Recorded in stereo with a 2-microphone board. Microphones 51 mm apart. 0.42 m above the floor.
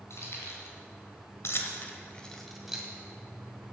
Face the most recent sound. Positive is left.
turn(degrees=-5)  # may be behind; listen again after turning